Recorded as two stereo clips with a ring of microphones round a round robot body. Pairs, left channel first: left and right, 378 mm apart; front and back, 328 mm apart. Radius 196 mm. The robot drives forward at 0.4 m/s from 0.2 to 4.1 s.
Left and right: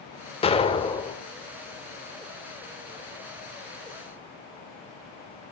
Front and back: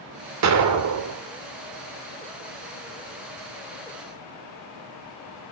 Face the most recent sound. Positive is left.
turn(degrees=170)